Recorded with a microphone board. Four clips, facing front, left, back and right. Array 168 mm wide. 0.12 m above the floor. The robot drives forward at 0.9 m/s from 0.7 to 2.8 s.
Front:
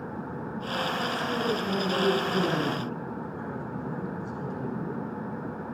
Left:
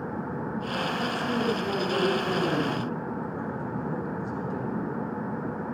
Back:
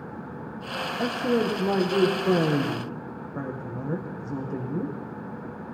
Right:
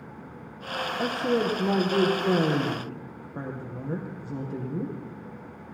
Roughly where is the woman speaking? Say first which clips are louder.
Right 6 dB, back 5 dB; behind right.